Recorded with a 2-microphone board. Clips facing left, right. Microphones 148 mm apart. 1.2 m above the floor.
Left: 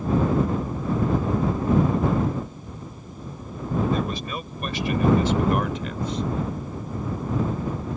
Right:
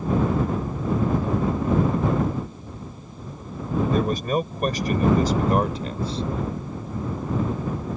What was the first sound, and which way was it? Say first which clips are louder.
A man speaking: right 5 dB; 50° right (ahead or behind).